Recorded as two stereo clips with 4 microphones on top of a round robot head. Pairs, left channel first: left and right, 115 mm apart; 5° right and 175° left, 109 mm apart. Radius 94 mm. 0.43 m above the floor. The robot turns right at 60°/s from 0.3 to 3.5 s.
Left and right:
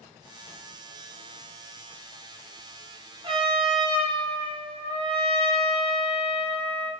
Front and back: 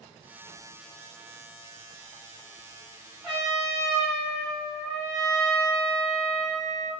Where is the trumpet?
100° right, 1.3 m; by 6.9 s 85° right, 1.3 m.